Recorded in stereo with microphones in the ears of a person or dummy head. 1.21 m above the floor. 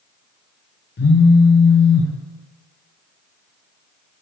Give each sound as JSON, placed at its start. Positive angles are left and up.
{"t": 1.0, "sound": "a phone buzzing", "side_deg": 50, "distance_m": 0.6}